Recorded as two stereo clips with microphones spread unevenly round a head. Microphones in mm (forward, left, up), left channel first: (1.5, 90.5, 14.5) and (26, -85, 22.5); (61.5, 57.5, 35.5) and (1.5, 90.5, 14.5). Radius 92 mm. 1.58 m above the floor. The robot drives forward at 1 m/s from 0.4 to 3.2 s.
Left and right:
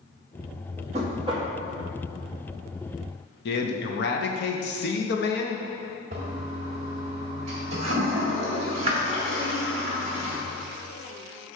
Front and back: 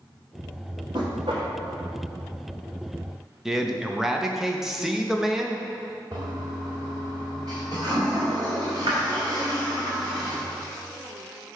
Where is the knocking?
135° right, 1.6 m; by 1.5 s 150° right, 2 m.